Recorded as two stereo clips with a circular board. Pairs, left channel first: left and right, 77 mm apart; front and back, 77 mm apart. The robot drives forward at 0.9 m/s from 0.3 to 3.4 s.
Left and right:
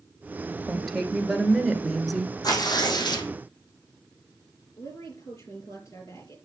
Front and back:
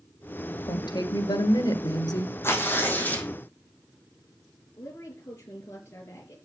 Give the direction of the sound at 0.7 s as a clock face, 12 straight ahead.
12 o'clock.